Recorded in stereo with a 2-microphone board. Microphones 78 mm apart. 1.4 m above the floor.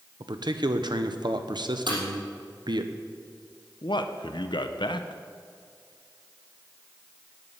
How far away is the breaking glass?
About 4.5 m.